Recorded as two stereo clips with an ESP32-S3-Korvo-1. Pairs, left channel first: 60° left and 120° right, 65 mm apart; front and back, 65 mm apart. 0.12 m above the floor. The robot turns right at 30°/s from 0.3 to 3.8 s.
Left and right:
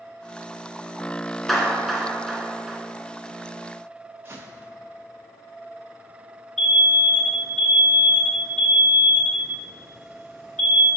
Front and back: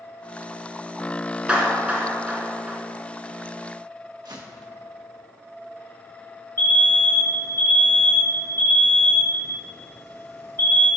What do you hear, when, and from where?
1.5 s a clap: 145° left, 0.9 m; by 2.8 s 175° right, 0.9 m
4.2 s footsteps: 175° right, 1.6 m
6.6 s an alarm: 20° right, 2 m